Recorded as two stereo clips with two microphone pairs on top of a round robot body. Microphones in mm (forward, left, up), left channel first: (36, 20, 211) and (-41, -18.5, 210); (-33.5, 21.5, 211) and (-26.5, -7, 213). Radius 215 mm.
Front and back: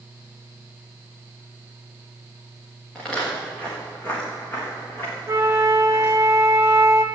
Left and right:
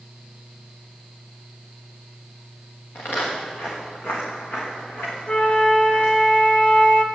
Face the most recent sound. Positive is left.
turn(degrees=150)